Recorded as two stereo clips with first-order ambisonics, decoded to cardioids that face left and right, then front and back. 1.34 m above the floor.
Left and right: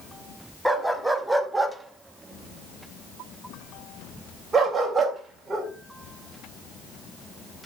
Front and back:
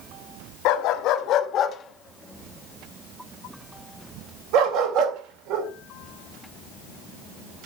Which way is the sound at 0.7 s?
Straight ahead.